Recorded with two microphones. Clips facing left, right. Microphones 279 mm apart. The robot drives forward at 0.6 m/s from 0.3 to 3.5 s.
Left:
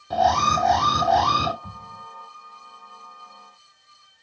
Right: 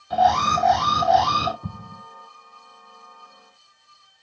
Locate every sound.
0.1 s an alarm: 50° left (ahead or behind), 3 m; by 1.5 s 55° left (ahead or behind), 2.5 m
1.6 s an explosion: 50° right (ahead or behind), 0.6 m; by 2.0 s 40° right (ahead or behind), 0.7 m